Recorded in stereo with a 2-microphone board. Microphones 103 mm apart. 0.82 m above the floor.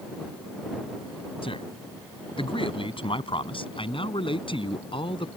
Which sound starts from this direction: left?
A man speaking, at 1.4 s.